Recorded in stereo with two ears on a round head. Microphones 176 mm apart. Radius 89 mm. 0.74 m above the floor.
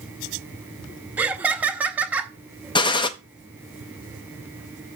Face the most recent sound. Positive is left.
turn(degrees=25)  # may be behind; listen again after turning